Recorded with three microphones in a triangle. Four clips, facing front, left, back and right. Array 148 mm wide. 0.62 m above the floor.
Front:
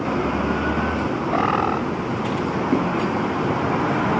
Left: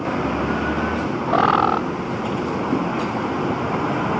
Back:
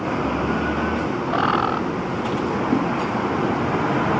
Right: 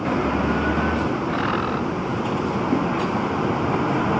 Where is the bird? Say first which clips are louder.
Left 6 dB, even; 80° left.